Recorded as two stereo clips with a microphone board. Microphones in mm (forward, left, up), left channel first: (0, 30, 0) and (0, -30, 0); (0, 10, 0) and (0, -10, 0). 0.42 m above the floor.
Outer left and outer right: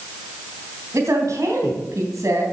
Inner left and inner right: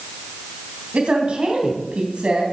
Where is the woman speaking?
65° right (ahead or behind), 3 m.